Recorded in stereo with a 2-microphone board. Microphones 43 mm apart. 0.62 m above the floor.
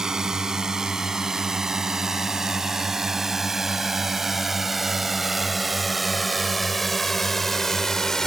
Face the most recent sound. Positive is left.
turn(degrees=10)  # may be behind; listen again after turning